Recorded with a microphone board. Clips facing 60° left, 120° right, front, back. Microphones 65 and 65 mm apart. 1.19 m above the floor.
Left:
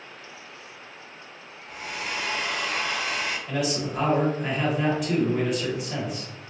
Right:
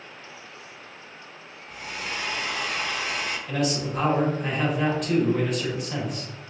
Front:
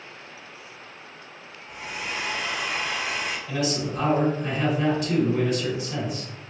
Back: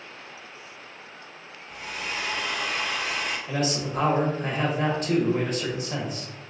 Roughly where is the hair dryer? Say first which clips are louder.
Left 1 dB, front 1 dB; ahead left.